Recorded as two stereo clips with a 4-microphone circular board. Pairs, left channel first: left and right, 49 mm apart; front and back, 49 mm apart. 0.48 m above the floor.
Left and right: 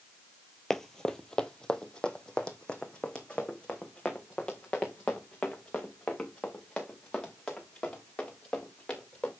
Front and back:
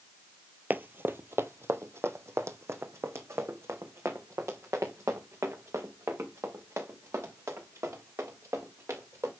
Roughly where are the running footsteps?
Behind.